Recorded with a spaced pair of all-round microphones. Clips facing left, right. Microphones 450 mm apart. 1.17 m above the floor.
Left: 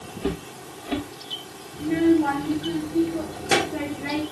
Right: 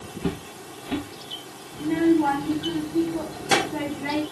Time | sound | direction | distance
0.2 | footsteps | 20° right (ahead or behind) | 5 m
1.7 | a child speaking | 15° right (ahead or behind) | 4 m